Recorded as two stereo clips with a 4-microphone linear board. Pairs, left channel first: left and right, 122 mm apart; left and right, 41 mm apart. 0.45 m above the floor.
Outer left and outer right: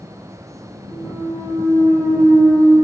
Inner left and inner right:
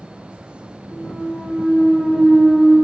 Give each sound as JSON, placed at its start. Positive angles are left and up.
{"t": 0.9, "sound": "a clunk", "side_deg": 30, "distance_m": 1.4}